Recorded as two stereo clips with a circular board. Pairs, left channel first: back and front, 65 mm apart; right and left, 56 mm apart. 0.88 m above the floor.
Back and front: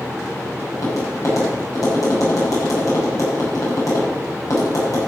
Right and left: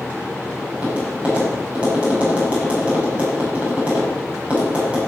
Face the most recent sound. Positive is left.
turn(degrees=155)